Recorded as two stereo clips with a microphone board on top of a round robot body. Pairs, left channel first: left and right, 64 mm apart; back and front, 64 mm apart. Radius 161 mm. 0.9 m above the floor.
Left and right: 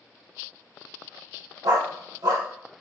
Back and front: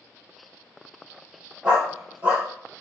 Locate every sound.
1.6 s a dog barking: 70° right, 0.8 m